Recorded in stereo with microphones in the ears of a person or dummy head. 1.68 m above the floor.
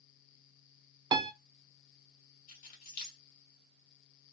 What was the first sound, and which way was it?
A piano, 20° right (ahead or behind).